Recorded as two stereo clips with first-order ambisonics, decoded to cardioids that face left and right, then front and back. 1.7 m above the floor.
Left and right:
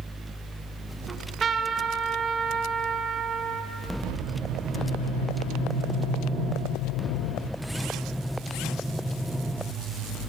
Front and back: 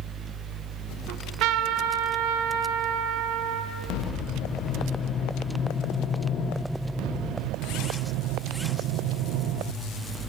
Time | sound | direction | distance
1.1 | a trumpet | 160° right | 0.8 m